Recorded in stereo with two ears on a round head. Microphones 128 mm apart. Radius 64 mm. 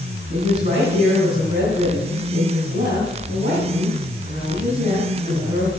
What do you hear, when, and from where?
0.3 s a woman speaking: 50° right (ahead or behind), 4.5 m